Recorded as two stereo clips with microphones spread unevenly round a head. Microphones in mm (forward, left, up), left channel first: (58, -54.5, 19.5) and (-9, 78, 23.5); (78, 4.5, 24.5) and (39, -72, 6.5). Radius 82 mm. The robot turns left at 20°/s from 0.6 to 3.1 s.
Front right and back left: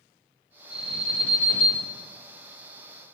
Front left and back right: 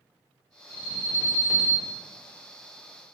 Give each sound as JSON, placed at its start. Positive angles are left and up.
{"t": 0.7, "sound": "an alarm", "azimuth_deg": 30, "distance_m": 1.8}